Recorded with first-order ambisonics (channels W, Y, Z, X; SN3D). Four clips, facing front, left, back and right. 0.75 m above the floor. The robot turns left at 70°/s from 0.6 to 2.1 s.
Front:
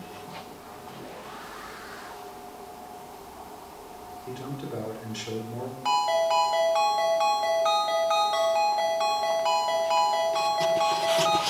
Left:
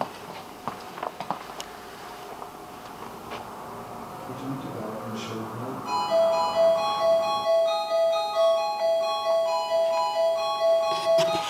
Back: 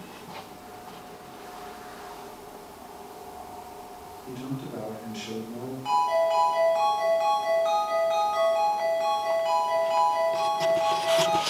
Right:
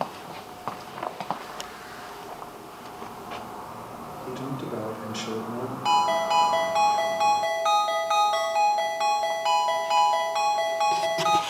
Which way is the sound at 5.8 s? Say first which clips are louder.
Even, even; 65° right.